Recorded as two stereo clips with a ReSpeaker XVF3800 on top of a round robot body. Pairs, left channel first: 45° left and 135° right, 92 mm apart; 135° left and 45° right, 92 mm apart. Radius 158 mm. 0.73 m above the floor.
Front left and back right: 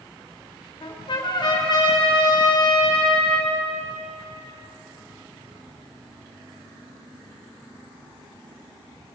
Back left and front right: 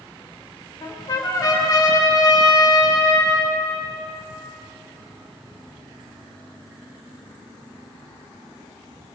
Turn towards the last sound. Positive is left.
turn(degrees=85)